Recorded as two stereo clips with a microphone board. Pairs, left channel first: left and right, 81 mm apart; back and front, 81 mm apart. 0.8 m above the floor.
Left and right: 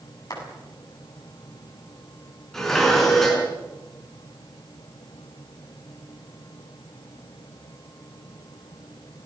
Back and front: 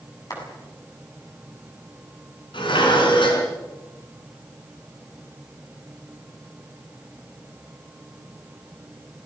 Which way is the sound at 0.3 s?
135° left.